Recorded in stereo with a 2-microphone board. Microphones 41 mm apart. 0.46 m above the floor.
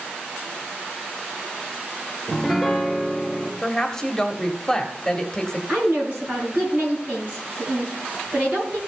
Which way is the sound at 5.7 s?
35° right (ahead or behind).